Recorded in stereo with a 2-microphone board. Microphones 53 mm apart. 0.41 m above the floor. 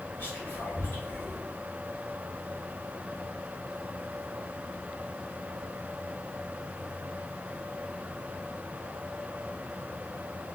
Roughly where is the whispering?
Left.